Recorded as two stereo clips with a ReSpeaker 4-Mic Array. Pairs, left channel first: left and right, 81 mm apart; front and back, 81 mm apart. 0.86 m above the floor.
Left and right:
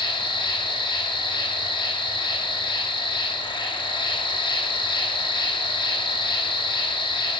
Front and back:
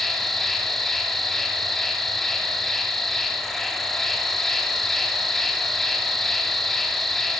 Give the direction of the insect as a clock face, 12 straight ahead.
9 o'clock.